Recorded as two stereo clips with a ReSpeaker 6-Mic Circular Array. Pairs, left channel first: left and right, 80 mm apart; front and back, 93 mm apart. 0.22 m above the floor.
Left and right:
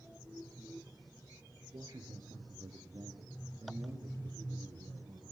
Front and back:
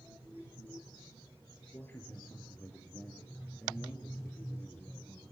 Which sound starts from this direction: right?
A man speaking, at 1.7 s.